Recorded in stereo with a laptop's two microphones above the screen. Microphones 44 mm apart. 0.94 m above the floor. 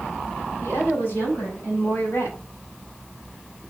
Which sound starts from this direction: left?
A woman speaking, at 0.6 s.